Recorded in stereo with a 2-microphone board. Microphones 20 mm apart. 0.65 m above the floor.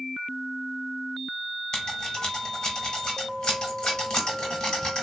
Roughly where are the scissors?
Left.